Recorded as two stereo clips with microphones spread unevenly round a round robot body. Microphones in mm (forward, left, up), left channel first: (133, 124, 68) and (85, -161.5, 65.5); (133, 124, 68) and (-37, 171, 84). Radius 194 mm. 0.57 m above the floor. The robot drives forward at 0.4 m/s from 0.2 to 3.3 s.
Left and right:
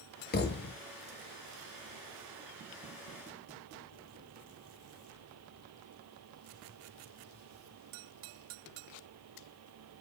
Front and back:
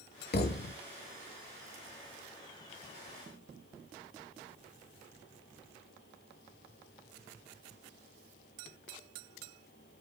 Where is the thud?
20° left, 0.8 m; by 0.8 s 25° left, 0.7 m.